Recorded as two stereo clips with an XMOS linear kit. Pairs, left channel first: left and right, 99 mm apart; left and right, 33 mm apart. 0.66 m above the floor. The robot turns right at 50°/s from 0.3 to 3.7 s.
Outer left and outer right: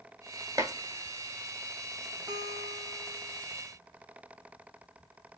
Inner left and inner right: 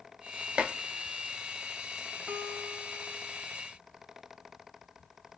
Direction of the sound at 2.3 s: 45° right.